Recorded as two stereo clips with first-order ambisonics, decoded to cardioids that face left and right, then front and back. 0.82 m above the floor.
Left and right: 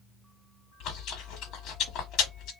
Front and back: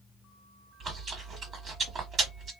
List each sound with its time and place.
0.8 s chewing: 125° left, 1.1 m